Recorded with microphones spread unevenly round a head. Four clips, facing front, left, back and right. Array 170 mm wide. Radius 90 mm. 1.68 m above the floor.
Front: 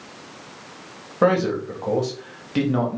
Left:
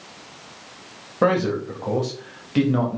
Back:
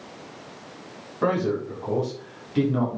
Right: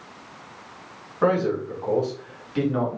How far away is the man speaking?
About 3.5 m.